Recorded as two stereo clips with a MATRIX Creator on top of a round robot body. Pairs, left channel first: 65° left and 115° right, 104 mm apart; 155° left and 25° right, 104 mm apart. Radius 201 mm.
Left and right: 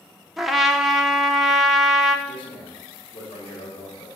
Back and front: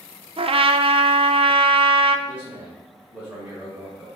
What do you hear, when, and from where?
0.4 s a trumpet: 25° right, 0.7 m
2.3 s a man speaking: 50° left, 3 m